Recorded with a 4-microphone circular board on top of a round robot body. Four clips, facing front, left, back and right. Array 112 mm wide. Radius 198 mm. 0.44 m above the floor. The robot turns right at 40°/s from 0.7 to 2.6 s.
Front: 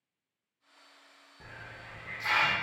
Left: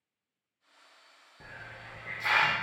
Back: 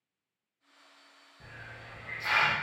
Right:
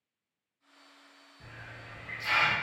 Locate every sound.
1.4 s a hiss: 60° left, 0.7 m; by 2.5 s 105° left, 0.7 m